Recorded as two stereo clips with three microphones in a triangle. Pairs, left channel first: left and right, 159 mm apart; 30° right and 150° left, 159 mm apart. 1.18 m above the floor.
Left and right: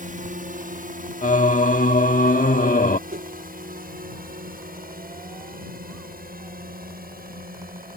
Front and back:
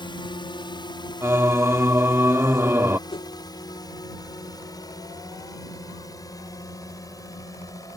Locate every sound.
0.0 s a drone: 85° right; by 8.0 s 95° right
1.2 s singing: 80° left
3.1 s a whoosh: 85° right